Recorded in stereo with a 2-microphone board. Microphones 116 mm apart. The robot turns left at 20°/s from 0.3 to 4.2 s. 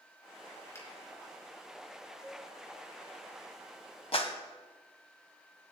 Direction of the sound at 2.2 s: 5° right (ahead or behind).